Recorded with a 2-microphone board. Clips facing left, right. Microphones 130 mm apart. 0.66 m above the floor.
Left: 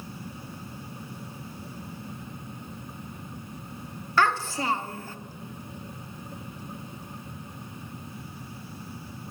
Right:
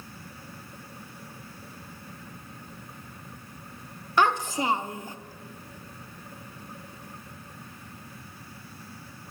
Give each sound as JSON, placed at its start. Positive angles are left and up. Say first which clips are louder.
{"t": 4.2, "sound": "a child speaking", "louder": "right 1 dB", "side_deg": -20, "distance_m": 0.7}